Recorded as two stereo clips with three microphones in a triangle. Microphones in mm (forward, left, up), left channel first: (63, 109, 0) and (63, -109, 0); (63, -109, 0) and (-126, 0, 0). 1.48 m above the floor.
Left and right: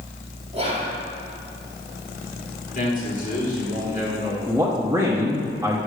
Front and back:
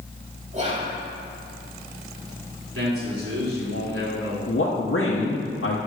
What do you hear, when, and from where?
0.5 s whispering: 150° right, 3.5 m
2.8 s a man speaking: 140° left, 3.5 m
4.5 s a man speaking: 10° right, 1.1 m